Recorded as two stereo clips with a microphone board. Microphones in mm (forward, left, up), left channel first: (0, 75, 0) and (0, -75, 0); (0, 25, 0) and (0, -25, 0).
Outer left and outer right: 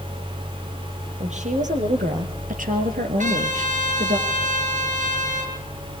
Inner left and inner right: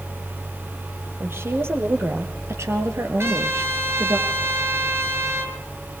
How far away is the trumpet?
About 4 m.